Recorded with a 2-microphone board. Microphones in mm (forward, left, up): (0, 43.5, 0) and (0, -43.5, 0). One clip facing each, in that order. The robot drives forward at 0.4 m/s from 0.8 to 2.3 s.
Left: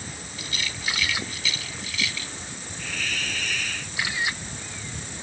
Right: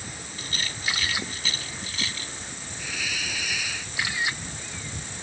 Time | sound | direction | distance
0.4 | a rattle | 40° right (ahead or behind) | ?
2.8 | a hiss | 10° right (ahead or behind) | ?